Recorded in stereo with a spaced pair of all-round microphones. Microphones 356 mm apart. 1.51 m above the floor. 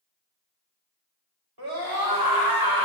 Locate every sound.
1.6 s a scream: 85° right, 3.5 m; by 2.9 s 70° right (ahead or behind), 2.5 m